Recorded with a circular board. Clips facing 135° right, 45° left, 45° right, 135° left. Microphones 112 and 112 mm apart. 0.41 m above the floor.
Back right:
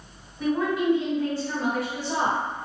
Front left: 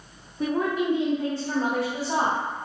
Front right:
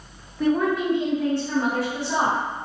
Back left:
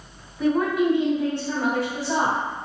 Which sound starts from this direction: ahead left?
A woman speaking, at 0.4 s.